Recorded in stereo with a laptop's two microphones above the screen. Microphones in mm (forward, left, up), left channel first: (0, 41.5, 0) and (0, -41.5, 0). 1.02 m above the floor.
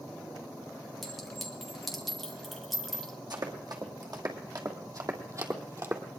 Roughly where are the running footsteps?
Right.